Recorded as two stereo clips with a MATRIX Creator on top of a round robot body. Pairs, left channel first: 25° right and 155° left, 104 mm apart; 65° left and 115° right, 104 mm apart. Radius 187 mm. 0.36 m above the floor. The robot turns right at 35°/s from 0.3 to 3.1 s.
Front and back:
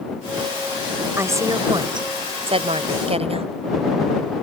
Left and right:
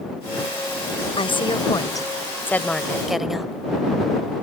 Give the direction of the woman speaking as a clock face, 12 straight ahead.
9 o'clock.